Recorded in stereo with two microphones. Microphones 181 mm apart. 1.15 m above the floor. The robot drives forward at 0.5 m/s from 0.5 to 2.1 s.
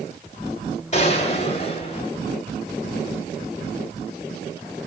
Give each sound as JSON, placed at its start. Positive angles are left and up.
{"t": 0.9, "sound": "a gunshot", "side_deg": 40, "distance_m": 2.5}